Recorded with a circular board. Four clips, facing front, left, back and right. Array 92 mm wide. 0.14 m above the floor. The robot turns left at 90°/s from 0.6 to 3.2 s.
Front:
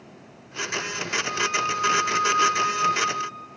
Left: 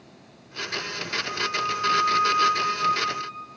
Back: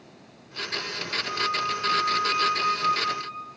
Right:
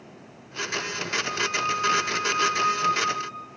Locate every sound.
1.2 s a flute: 30° right, 3 m; by 3.5 s 155° left, 3 m